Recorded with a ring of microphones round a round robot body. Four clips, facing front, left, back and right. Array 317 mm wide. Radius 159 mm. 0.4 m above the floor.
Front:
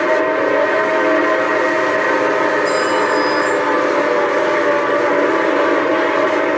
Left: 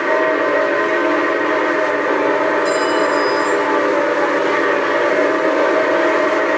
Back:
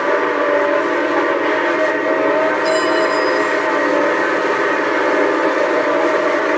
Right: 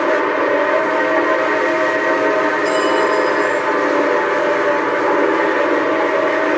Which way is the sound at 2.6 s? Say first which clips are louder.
Right 1 dB, even; 140° left.